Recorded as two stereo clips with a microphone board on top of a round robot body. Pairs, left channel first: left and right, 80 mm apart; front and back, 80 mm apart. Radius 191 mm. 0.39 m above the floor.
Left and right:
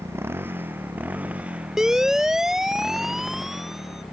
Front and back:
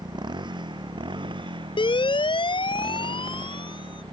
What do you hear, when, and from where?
0.0 s a motorcycle: 150° right; by 4.1 s straight behind
1.8 s a siren: 5° right